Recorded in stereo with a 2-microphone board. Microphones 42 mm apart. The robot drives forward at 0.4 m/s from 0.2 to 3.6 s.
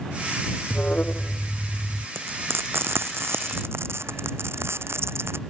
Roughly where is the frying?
Right.